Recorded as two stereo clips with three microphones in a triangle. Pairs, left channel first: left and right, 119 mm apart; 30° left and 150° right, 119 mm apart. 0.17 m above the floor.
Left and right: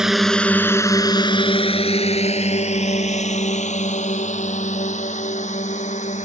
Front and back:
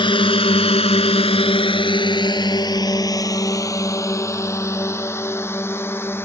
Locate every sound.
0.0 s a drone: 5° right; by 6.2 s 100° left